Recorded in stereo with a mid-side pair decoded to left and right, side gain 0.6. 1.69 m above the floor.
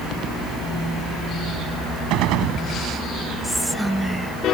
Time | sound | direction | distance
2.1 | a gunshot | 70° right | ?
3.4 | whispering | 5° right | ?